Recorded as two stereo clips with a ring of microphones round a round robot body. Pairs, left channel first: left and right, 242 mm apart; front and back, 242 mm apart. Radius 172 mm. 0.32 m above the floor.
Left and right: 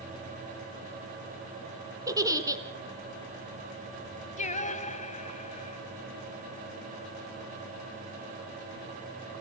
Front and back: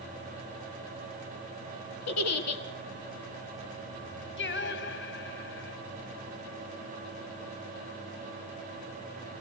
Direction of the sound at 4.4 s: 35° left.